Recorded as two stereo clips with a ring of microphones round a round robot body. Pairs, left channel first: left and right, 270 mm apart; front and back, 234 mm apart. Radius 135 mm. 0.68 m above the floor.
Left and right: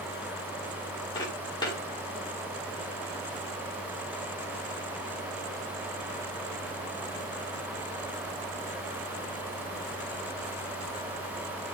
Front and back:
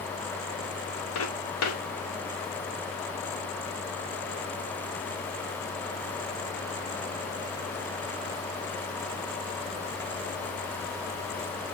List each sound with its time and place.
1.1 s footsteps: 15° left, 6.5 m